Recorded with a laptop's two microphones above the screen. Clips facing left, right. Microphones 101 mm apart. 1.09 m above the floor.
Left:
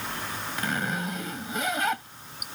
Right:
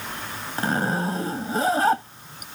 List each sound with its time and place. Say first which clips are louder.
0.6 s a zipper: right 7 dB; 35° right (ahead or behind)